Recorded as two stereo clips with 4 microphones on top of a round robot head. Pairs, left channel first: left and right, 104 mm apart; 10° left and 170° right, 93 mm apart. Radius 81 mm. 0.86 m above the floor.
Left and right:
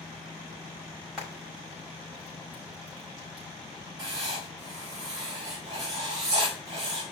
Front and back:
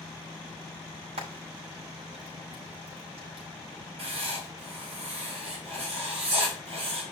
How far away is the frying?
About 5.5 m.